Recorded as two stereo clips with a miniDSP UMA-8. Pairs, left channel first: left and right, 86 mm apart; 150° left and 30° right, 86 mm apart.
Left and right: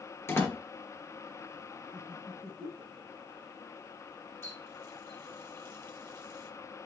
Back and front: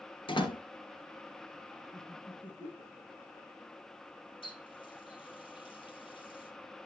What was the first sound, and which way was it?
A door slam, 150° left.